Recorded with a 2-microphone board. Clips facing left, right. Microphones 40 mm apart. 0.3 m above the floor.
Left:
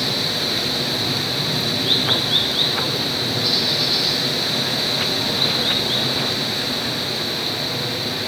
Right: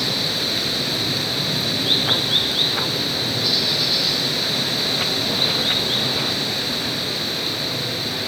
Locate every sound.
0.0 s running water: centre (ahead or behind), 0.8 m